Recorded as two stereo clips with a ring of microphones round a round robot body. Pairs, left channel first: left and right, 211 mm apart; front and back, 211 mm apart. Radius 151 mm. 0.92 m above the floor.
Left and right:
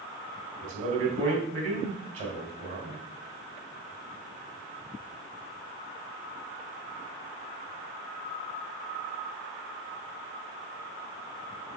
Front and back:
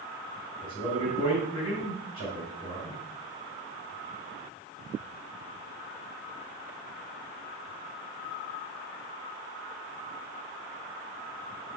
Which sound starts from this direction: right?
A man speaking, at 0.6 s.